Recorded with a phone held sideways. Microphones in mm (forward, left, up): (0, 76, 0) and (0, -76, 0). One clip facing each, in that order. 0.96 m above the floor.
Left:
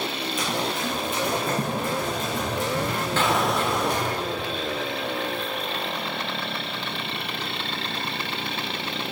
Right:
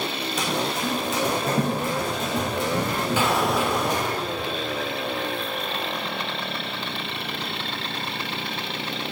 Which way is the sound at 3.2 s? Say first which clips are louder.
Even; 10° right (ahead or behind).